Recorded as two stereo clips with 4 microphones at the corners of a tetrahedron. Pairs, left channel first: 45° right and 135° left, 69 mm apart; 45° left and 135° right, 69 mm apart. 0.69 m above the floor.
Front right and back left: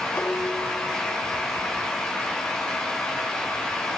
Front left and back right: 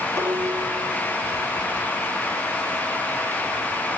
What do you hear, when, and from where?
0.2 s dishes clattering: 105° right